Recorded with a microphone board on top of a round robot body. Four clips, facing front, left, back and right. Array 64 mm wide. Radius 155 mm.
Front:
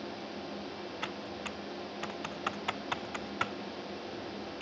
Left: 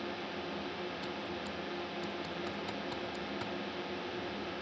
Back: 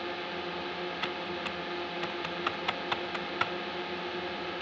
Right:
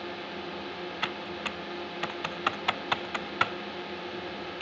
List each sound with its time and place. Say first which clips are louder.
0.0 s a drone: right 2 dB, back 5 dB; 165° right
1.0 s typing on a keyboard: right 5 dB, back 5 dB; 95° right